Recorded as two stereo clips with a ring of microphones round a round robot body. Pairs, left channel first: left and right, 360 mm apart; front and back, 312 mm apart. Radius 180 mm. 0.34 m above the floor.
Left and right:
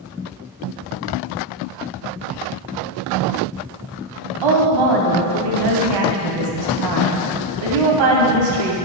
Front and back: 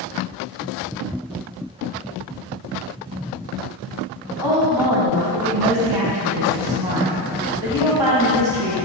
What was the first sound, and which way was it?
A woman speaking, 100° right.